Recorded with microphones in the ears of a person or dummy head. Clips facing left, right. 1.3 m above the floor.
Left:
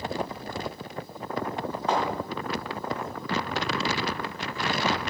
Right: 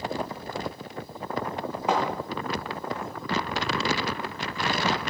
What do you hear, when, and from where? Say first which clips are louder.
1.9 s a thud: right 1 dB; 15° right (ahead or behind), 5.5 m